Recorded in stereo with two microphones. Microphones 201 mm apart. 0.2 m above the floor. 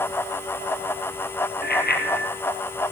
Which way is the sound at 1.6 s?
50° left (ahead or behind).